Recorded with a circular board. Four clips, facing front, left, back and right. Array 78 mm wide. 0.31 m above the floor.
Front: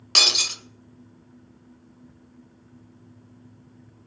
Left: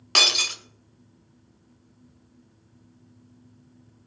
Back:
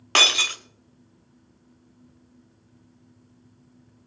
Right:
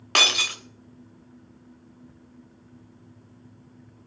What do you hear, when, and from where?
0.1 s breaking glass: 160° right, 0.7 m